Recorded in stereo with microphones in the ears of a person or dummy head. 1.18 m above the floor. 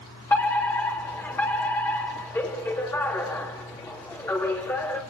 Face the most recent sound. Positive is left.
turn(degrees=15)  # may be behind; listen again after turning